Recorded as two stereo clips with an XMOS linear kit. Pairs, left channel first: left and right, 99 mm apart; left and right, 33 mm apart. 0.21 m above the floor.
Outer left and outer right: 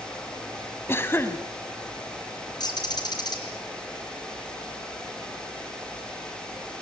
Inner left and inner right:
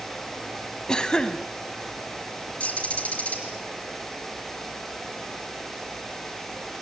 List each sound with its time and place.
0.9 s a cough: 25° left (ahead or behind), 1.4 m
2.6 s a bird: 45° left (ahead or behind), 4.5 m